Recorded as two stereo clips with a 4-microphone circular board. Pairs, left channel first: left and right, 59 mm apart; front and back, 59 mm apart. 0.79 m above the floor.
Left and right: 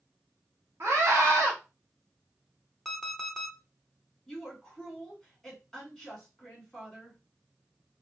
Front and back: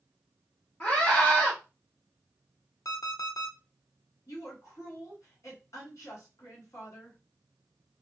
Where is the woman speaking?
5° left, 1.7 m.